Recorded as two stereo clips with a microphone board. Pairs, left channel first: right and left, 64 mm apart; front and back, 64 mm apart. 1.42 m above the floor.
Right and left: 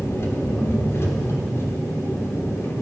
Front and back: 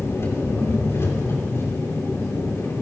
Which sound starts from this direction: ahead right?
An engine running, at 0.0 s.